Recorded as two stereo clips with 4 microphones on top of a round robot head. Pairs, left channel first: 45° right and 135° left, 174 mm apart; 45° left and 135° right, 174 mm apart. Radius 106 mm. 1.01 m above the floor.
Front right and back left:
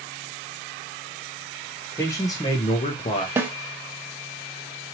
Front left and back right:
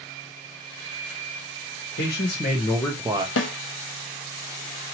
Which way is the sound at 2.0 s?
35° left.